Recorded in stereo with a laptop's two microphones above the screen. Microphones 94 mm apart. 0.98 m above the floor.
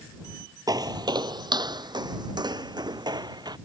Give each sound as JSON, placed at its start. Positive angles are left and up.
{"t": 0.7, "sound": "footsteps", "side_deg": -45}